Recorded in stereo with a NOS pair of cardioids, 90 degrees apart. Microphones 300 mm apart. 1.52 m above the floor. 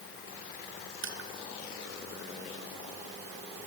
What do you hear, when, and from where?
1.0 s crushing: 40° right, 2.5 m